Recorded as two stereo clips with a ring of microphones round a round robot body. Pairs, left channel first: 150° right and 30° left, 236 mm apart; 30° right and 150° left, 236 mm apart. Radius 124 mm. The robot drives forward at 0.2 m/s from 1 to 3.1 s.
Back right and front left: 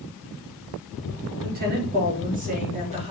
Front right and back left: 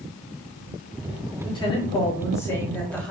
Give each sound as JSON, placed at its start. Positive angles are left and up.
{"t": 1.4, "sound": "a woman speaking", "azimuth_deg": 30, "distance_m": 1.0}